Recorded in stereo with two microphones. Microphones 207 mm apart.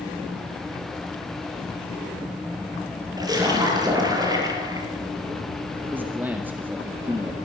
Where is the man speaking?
10° right (ahead or behind), 1.9 m.